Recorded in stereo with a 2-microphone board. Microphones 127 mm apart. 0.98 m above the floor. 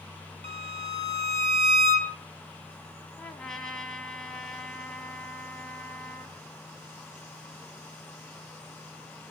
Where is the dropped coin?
No dropped coin in this recording.